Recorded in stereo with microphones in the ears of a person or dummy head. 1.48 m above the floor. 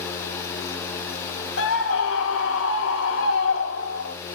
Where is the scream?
85° left, 4 m.